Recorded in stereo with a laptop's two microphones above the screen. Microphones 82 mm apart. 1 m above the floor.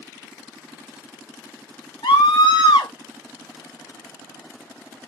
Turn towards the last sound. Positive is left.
turn(degrees=85)